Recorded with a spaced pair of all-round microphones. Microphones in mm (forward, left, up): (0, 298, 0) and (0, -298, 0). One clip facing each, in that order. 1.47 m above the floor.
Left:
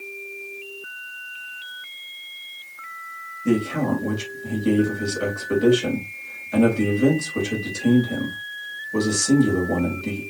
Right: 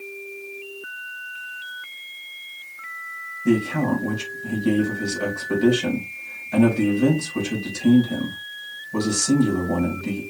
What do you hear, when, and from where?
3.5 s a man speaking: 20° right (ahead or behind), 2.5 m